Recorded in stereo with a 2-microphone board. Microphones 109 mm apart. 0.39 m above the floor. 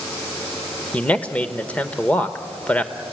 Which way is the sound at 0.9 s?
15° left (ahead or behind).